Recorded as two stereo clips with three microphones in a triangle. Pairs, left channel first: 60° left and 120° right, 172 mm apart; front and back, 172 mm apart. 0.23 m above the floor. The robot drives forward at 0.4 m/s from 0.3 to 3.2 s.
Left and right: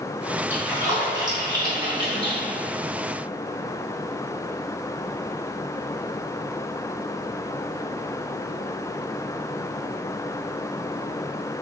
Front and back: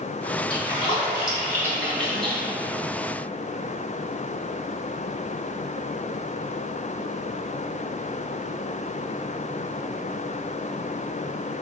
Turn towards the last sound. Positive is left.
turn(degrees=-115)